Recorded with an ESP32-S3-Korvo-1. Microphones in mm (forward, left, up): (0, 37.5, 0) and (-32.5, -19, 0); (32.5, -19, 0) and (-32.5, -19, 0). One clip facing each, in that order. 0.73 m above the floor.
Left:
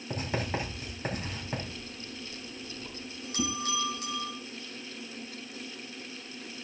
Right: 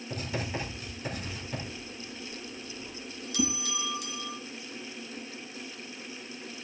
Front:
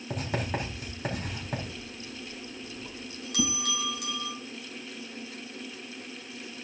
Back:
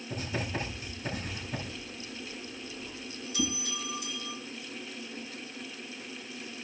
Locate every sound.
0.1 s writing: 10° left, 4.5 m
1.7 s a bell: 10° left, 3 m
3.4 s a whoosh: 30° right, 2.5 m